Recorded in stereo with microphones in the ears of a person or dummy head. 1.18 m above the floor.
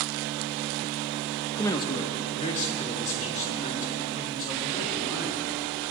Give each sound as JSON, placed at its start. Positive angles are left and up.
{"t": 1.6, "sound": "a man speaking", "side_deg": 15, "distance_m": 0.9}